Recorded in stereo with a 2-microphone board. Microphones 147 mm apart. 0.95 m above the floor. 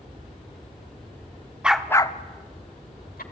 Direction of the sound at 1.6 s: 10° right (ahead or behind).